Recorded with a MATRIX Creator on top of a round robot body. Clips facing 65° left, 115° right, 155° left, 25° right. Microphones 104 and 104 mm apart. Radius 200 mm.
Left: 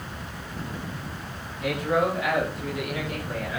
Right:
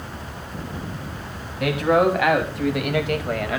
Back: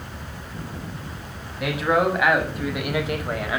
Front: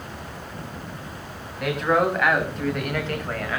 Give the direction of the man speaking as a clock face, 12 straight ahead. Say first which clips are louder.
Right 6 dB, even; 4 o'clock.